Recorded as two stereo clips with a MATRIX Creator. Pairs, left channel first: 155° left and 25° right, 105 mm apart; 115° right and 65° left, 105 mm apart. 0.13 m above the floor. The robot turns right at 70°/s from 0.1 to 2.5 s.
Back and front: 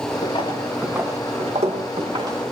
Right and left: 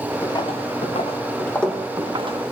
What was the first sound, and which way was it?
Footsteps, 175° right.